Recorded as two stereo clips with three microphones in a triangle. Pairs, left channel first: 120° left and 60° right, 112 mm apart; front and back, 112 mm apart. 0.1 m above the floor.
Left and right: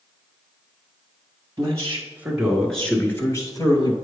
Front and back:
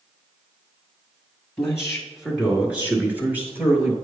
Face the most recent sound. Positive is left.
turn(degrees=120)